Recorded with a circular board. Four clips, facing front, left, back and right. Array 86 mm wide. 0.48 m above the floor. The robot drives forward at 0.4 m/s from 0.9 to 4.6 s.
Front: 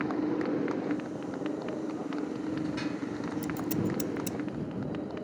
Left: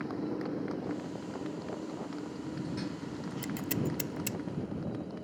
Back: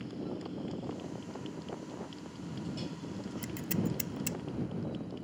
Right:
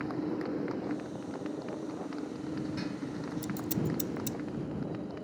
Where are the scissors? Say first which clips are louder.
Even, front 3 dB; 110° left; by 4.4 s 120° left.